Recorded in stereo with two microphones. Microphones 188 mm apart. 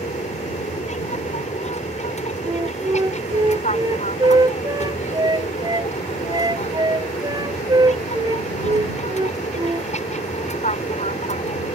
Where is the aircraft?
40° left (ahead or behind).